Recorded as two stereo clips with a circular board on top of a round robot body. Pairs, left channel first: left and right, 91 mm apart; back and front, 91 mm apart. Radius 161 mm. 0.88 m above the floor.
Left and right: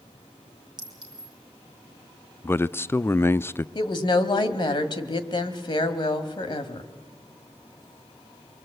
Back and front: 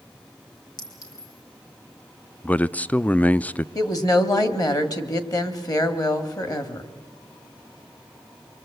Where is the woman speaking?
130° left, 1.8 m.